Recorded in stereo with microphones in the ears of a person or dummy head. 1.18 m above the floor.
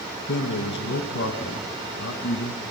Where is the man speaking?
65° left (ahead or behind), 1.3 m.